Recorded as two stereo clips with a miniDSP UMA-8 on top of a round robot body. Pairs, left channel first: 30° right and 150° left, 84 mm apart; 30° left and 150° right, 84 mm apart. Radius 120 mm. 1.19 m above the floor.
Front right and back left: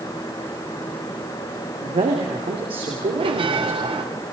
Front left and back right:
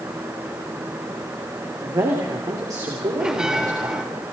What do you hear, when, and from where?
1.8 s a man speaking: 160° left, 3.5 m
3.2 s a bell: 130° left, 1.8 m